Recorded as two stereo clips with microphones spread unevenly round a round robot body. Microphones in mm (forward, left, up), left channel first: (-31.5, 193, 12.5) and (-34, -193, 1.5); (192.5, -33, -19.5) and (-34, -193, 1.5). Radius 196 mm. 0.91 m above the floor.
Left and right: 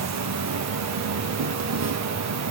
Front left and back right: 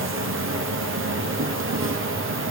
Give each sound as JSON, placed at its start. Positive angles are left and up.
{"t": 0.0, "sound": "an insect", "azimuth_deg": -115, "distance_m": 1.0}